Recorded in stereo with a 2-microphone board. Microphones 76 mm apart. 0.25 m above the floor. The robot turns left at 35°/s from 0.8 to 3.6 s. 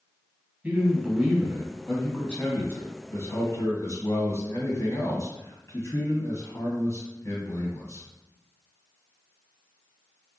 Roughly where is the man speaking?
Behind right.